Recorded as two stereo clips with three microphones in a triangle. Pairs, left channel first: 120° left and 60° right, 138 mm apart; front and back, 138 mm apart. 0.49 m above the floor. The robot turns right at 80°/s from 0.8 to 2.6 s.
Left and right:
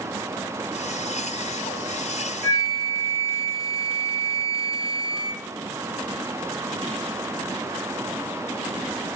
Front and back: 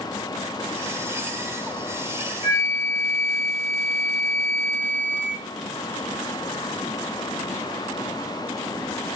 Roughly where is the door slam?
No door slam in this recording.